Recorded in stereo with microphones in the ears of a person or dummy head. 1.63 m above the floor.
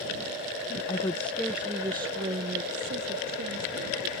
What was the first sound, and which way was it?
A woman speaking, 25° left (ahead or behind).